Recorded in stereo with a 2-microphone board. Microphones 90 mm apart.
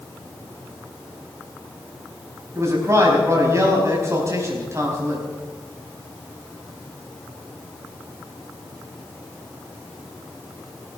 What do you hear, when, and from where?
2.5 s a man speaking: 35° right (ahead or behind), 4 m